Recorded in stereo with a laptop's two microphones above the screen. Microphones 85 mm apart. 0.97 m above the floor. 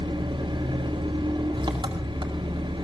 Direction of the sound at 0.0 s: 70° right (ahead or behind).